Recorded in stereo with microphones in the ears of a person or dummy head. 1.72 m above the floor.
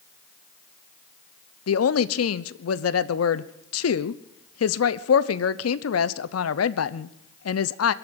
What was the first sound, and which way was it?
A woman speaking, 85° left.